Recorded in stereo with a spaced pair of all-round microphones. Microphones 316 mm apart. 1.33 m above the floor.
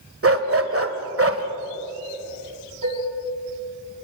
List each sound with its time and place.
0.2 s a dog barking: 45° right (ahead or behind), 1.4 m
2.8 s dishes clattering: 80° right, 6.5 m